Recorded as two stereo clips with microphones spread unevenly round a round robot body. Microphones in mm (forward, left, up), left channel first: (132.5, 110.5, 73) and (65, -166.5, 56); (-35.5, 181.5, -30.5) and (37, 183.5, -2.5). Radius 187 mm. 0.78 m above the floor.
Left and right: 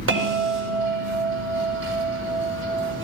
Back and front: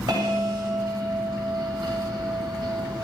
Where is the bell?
55° right, 1.7 m.